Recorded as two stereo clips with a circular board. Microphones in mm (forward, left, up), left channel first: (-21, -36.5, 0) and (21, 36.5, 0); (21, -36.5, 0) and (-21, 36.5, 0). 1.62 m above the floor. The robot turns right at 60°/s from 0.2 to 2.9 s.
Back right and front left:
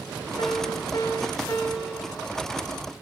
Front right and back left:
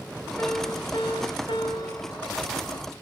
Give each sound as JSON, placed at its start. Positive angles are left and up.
{"t": 0.4, "sound": "a piano", "azimuth_deg": -130, "distance_m": 4.5}